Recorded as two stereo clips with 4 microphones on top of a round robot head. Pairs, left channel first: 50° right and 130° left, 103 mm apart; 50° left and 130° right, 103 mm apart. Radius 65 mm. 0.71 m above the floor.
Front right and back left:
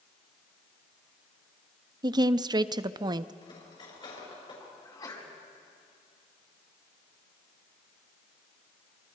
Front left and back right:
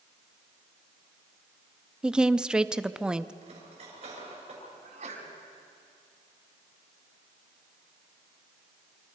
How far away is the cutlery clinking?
About 6.5 m.